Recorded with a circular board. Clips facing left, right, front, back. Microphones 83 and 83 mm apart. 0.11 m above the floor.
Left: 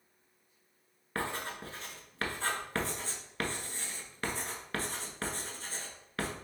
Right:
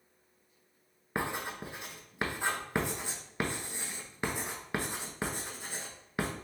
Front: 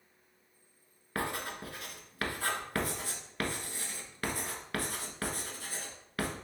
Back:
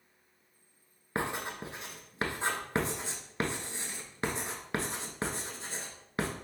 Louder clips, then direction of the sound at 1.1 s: Right 2 dB, back 2 dB; 145° right.